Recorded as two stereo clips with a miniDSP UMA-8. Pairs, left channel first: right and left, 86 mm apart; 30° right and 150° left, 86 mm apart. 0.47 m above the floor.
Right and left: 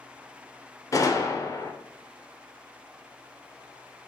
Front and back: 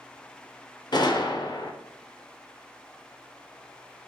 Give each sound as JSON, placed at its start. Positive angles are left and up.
{"t": 0.9, "sound": "a gunshot", "azimuth_deg": -45, "distance_m": 0.6}